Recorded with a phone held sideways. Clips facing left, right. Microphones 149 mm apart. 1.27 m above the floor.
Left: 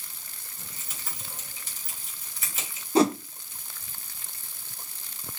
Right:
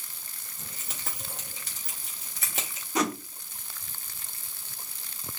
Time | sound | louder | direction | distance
0.6 | keys jangling | right 3 dB | 80° right | 2.5 m
3.0 | a whoosh | left 7 dB | 30° left (ahead or behind) | 0.6 m